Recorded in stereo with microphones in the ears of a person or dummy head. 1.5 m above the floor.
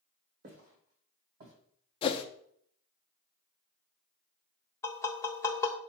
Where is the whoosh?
20° left (ahead or behind), 0.6 m.